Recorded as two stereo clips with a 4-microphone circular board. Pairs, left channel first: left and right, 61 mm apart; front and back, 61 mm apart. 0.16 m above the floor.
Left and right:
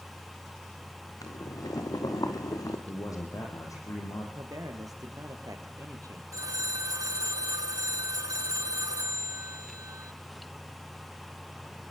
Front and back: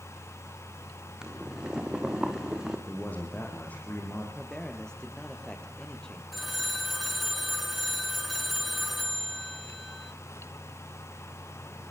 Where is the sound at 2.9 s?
65° left, 5.5 m.